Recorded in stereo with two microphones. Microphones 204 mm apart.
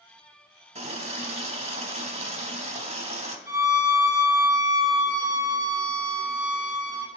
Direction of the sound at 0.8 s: 30° right (ahead or behind).